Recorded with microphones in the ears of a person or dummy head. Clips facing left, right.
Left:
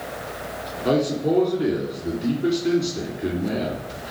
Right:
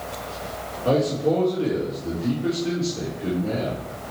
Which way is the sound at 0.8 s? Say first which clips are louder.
Even; 25° left (ahead or behind).